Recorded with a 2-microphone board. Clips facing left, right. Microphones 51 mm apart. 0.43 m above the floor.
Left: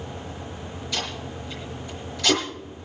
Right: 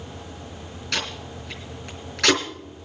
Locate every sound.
0.9 s tape being pulled: 75° right (ahead or behind), 3.5 m